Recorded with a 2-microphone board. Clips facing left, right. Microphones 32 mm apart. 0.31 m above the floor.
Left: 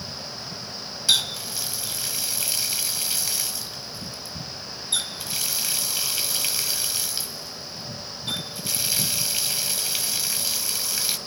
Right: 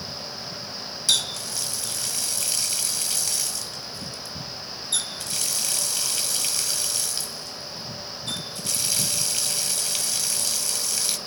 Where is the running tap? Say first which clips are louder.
Left 2 dB; 15° left (ahead or behind), 0.9 m.